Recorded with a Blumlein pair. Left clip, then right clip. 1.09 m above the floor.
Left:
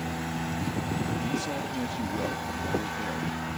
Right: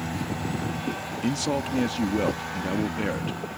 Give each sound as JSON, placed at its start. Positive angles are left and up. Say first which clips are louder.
{"t": 1.2, "sound": "a man speaking", "louder": "right 4 dB", "azimuth_deg": -25}